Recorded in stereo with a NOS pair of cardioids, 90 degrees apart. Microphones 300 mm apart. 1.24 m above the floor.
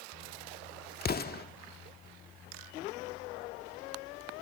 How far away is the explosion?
About 1.6 m.